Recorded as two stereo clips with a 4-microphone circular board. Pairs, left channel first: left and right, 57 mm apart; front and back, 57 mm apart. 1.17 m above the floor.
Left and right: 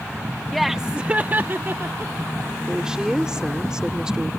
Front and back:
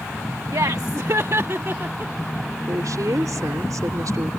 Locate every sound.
0.5 s laughter: 175° left; by 2.1 s 130° right
2.7 s a woman speaking: 165° right